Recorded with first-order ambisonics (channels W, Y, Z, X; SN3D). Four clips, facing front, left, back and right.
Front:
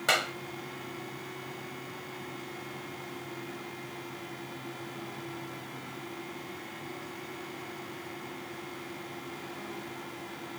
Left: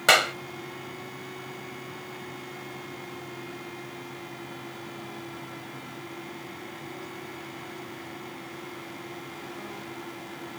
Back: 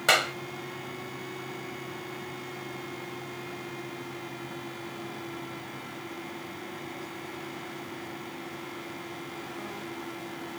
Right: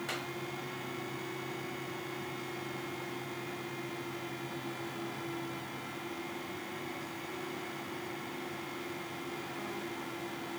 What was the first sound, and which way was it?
A clap, 105° left.